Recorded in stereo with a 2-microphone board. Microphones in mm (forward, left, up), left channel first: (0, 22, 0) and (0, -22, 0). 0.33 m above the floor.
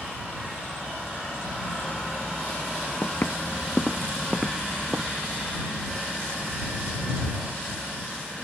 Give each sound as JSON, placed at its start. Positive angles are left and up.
{"t": 3.0, "sound": "footsteps", "side_deg": 65}